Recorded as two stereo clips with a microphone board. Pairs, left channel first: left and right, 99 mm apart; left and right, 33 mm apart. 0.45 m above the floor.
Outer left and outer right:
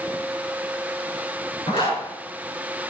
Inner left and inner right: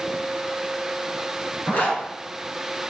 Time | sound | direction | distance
1.7 | a zipper | 65° left (ahead or behind) | 5 m